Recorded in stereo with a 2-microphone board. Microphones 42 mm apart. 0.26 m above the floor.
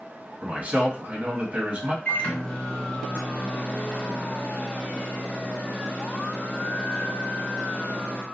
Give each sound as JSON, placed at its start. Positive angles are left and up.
{"t": 0.4, "sound": "a man speaking", "side_deg": -40, "distance_m": 1.7}
{"t": 2.0, "sound": "a microwave", "side_deg": 40, "distance_m": 1.4}